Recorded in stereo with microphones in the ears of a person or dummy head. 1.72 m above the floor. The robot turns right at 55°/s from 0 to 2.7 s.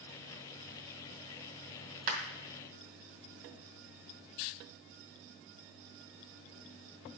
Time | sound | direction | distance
2.1 | a clap | 45° right (ahead or behind) | 2 m